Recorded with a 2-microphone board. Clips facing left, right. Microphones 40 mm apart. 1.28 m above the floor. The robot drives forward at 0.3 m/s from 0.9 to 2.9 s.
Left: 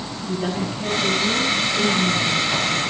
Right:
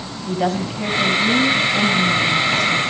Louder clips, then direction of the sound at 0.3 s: Right 4 dB; 75° right (ahead or behind).